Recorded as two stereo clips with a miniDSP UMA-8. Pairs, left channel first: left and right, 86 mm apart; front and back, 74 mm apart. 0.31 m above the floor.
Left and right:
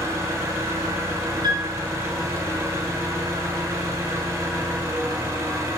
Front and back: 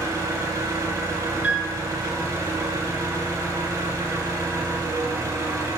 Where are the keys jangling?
I don't hear keys jangling.